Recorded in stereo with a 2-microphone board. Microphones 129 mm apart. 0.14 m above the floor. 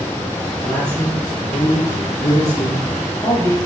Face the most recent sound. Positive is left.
turn(degrees=30)  # may be behind; listen again after turning